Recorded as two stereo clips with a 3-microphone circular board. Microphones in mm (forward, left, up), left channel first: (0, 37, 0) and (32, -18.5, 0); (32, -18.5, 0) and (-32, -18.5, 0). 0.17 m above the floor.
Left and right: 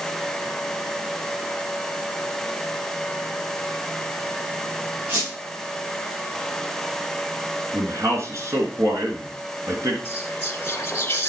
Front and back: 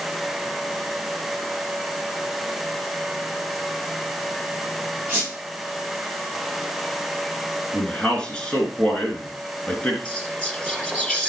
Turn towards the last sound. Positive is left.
turn(degrees=70)